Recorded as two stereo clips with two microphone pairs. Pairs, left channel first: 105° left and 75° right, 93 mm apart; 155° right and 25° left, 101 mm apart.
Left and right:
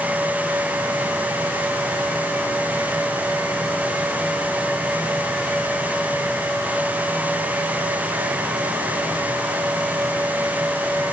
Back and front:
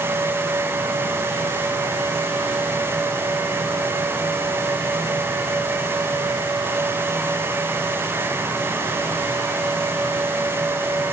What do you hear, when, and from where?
Only background noise.